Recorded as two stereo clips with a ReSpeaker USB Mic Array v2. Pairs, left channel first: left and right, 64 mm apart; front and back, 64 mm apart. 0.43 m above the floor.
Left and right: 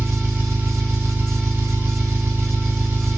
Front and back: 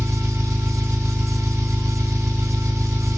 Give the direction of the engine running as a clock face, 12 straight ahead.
5 o'clock.